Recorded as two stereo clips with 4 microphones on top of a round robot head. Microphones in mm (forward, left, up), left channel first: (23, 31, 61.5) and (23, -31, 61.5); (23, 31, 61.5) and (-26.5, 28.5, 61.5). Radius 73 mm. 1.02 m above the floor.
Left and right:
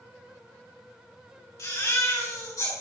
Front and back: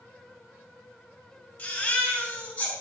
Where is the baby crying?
65° left, 4.5 m.